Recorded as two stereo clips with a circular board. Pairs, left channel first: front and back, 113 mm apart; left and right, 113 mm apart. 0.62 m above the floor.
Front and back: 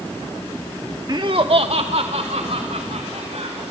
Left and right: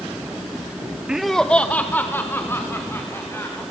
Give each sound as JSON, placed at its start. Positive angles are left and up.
{"t": 1.1, "sound": "laughter", "azimuth_deg": -165, "distance_m": 0.8}